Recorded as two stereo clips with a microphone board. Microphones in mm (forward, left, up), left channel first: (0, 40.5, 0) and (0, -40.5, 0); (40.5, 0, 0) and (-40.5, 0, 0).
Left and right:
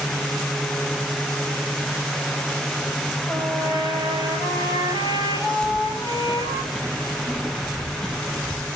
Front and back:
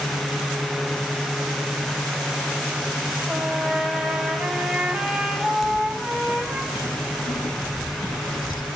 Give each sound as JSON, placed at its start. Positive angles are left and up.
{"t": 3.3, "sound": "a trumpet", "azimuth_deg": -100, "distance_m": 9.0}
{"t": 5.6, "sound": "keys jangling", "azimuth_deg": -10, "distance_m": 4.0}